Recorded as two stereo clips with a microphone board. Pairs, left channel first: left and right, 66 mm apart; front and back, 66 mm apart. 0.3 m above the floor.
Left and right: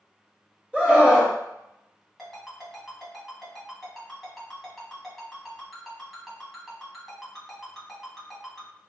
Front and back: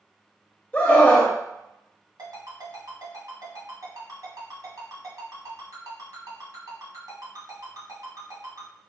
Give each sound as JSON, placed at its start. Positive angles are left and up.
{"t": 0.7, "sound": "a scream", "azimuth_deg": -40, "distance_m": 0.9}
{"t": 2.2, "sound": "a ringtone", "azimuth_deg": 180, "distance_m": 1.7}